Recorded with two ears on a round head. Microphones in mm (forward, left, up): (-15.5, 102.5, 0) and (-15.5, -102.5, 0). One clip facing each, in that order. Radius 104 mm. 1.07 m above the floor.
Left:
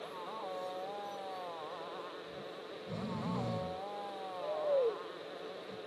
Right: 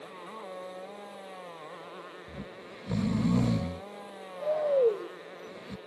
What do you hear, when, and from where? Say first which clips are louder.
0.0 s a motorcycle: even; 30° right (ahead or behind)
2.3 s snoring: right 1 dB; 75° right (ahead or behind)